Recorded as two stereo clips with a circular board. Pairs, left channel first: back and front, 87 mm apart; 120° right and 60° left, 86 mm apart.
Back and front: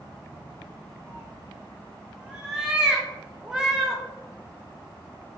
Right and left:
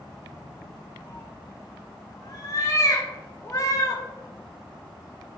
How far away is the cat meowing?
About 0.5 m.